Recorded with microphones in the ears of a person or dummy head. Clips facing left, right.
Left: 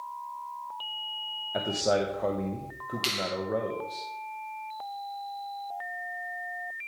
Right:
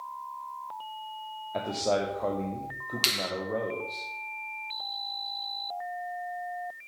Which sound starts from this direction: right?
A finger snap, at 3.0 s.